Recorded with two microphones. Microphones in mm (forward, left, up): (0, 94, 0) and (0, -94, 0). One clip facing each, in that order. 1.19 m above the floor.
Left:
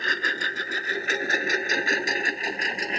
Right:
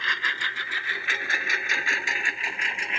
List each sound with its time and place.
0.0 s a lawn mower: 45° left (ahead or behind); by 3.0 s 40° left (ahead or behind)